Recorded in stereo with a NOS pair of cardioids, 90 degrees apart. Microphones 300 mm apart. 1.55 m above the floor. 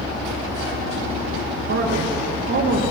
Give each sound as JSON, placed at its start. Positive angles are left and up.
{"t": 1.7, "sound": "a man speaking", "azimuth_deg": -45, "distance_m": 3.5}